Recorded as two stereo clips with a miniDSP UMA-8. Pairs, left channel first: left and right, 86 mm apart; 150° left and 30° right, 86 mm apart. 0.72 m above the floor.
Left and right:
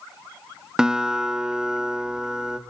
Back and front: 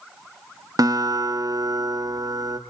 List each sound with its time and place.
0.8 s a guitar: 10° right, 1.3 m